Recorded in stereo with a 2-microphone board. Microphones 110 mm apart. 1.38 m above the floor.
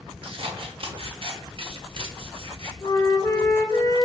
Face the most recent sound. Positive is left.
turn(degrees=30)  # may be behind; listen again after turning